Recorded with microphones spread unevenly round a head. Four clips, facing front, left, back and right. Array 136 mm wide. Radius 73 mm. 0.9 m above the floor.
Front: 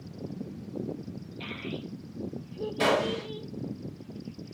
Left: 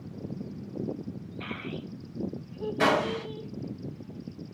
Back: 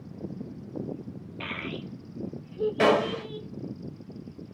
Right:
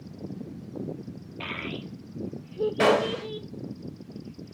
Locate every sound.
1.4 s a child speaking: 130° right, 1.0 m; by 3.5 s 90° right, 2.5 m
2.8 s a gunshot: 140° right, 3 m